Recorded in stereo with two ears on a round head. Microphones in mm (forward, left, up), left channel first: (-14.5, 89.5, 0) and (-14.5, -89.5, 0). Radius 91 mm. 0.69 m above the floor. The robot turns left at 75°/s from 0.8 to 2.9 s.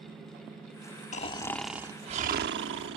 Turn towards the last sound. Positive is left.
turn(degrees=-95)